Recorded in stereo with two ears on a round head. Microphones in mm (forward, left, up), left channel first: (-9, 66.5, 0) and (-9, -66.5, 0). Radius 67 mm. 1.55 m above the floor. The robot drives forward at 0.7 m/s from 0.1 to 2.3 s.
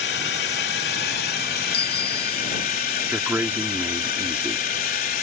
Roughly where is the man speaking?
Centre.